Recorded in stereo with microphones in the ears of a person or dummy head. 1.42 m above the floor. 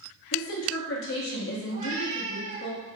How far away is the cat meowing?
About 1.5 m.